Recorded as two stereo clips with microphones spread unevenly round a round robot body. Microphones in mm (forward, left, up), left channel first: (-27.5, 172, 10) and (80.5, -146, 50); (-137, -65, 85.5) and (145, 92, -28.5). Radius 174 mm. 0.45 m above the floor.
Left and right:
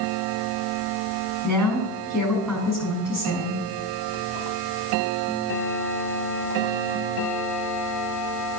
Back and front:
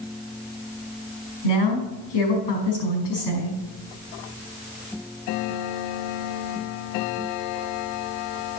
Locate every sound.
1.4 s a woman speaking: 165° right, 5.5 m